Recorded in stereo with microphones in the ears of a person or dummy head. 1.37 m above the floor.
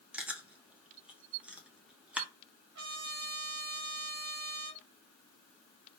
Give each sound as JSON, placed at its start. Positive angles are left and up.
{"t": 0.1, "sound": "chewing", "side_deg": -10, "distance_m": 0.6}
{"t": 2.8, "sound": "a trumpet", "side_deg": -70, "distance_m": 1.5}